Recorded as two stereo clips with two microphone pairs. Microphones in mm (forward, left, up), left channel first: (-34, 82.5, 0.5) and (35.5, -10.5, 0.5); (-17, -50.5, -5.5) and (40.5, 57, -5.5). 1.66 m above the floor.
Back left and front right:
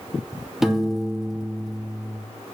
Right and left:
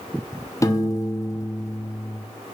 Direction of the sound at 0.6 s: 140° right.